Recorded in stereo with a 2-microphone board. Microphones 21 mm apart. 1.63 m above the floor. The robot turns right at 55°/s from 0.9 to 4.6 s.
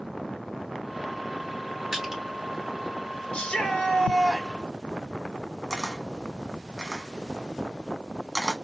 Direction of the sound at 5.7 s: 10° right (ahead or behind).